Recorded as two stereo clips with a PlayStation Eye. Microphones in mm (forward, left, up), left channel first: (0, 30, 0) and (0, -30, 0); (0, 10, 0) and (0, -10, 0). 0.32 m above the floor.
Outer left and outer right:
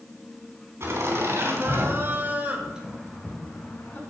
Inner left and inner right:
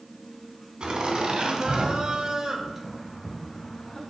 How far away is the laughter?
About 3 m.